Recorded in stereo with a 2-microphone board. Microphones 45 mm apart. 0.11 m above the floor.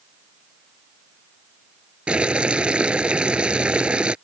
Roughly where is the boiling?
Right.